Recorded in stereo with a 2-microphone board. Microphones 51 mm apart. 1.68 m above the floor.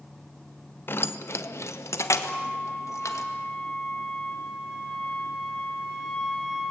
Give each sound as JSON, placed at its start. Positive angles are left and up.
{"t": 0.9, "sound": "keys jangling", "side_deg": 45, "distance_m": 0.7}
{"t": 2.2, "sound": "a flute", "side_deg": 20, "distance_m": 3.0}